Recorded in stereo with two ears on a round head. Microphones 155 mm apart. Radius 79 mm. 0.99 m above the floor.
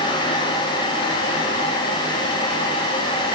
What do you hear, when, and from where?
Only background noise.